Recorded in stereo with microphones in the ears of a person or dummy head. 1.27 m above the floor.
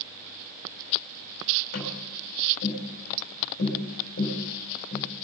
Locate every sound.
1.7 s tapping: 60° left (ahead or behind), 4.5 m